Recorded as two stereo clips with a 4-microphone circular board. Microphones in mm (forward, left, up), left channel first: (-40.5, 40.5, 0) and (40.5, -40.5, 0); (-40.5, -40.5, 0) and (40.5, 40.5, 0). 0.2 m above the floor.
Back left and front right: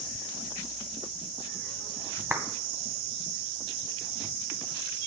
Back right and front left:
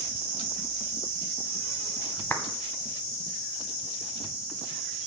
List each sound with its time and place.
2.3 s a clap: 85° right, 1.4 m